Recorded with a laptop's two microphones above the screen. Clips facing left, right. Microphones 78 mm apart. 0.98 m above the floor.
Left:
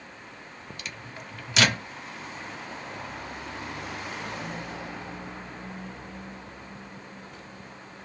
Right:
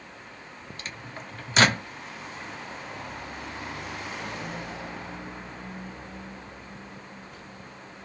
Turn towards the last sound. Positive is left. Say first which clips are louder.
# right 2 dB
turn(degrees=-40)  # may be behind; listen again after turning